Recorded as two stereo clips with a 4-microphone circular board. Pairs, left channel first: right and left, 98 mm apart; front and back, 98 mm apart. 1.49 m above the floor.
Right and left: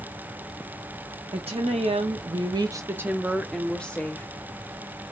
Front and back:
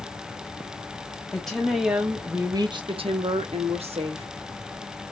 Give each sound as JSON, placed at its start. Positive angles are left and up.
{"t": 1.3, "sound": "a woman speaking", "azimuth_deg": 85, "distance_m": 0.9}